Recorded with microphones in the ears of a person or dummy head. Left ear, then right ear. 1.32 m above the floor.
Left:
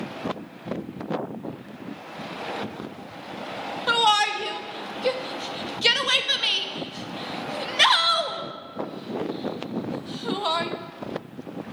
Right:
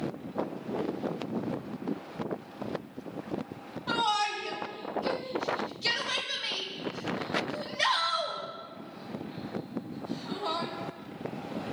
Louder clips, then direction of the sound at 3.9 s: Left 8 dB; 85° left.